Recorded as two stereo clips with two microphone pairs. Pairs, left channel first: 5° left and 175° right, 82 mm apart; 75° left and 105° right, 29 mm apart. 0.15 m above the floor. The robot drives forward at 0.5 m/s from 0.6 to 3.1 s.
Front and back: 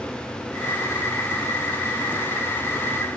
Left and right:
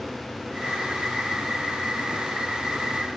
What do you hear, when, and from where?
Only background noise.